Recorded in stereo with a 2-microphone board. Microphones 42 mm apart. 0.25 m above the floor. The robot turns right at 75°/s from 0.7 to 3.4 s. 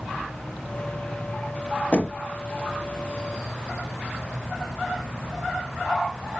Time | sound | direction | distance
1.9 | knocking | 25° left (ahead or behind) | 1.1 m